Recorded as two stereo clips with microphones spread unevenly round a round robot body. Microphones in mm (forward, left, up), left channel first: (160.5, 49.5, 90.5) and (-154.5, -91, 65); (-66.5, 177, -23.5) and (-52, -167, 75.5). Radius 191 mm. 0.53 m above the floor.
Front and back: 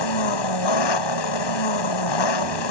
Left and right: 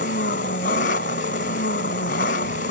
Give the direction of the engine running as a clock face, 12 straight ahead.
11 o'clock.